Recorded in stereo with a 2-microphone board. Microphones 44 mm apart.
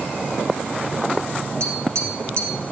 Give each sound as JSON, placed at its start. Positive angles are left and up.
{"t": 1.6, "sound": "tapping", "side_deg": -70, "distance_m": 3.0}